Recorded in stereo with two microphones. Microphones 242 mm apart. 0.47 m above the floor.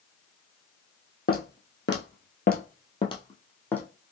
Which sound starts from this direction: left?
Footsteps, at 1.3 s.